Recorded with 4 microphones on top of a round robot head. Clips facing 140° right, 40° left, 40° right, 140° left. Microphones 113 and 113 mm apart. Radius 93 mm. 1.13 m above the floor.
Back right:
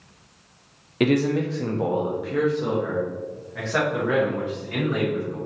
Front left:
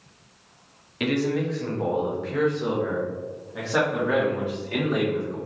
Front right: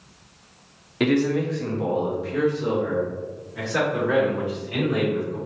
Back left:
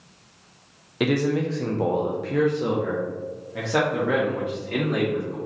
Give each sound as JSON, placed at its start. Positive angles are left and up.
{"t": 1.0, "sound": "a man speaking", "azimuth_deg": -135, "distance_m": 0.7}